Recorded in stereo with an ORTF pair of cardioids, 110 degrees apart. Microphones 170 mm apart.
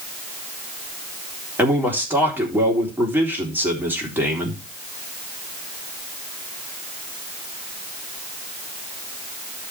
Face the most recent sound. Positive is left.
turn(degrees=-10)